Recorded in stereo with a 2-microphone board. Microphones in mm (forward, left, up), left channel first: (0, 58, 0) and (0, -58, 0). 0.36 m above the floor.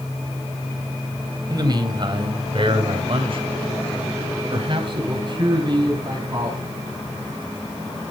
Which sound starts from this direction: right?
A man speaking, at 1.5 s.